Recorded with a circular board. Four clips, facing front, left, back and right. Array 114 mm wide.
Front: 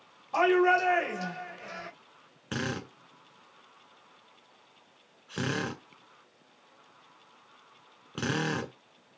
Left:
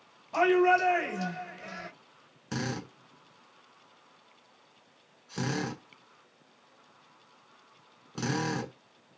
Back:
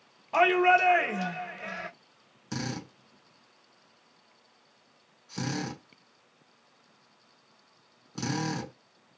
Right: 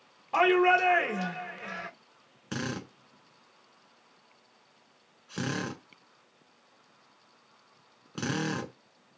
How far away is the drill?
About 1.6 m.